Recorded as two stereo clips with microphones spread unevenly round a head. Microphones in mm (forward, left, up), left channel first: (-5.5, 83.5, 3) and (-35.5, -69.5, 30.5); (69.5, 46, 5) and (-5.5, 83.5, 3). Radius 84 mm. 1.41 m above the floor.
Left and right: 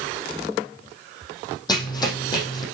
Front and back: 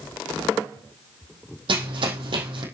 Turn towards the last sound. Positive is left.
turn(degrees=145)